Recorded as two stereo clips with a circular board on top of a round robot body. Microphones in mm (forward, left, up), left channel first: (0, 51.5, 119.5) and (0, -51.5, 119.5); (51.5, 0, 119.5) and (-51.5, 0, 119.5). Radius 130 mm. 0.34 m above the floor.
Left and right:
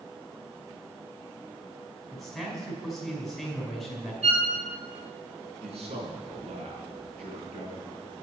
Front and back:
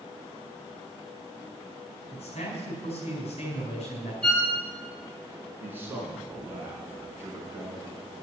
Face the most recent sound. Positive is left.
turn(degrees=-110)